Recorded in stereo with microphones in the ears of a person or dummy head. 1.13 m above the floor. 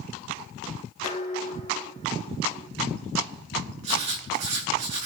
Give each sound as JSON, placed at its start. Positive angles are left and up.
{"t": 1.0, "sound": "dishes clattering", "side_deg": 45, "distance_m": 2.0}
{"t": 3.8, "sound": "writing", "side_deg": -25, "distance_m": 3.5}